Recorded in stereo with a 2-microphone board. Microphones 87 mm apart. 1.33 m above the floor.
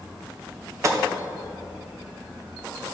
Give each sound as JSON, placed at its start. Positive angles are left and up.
{"t": 0.8, "sound": "a gunshot", "side_deg": -35, "distance_m": 0.7}